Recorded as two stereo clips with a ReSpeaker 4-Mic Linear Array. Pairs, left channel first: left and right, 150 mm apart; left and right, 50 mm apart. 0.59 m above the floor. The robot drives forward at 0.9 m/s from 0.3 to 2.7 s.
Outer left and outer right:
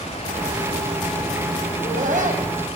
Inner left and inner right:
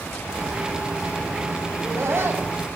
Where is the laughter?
65° right (ahead or behind), 4 m; by 2.5 s 55° right (ahead or behind), 4.5 m.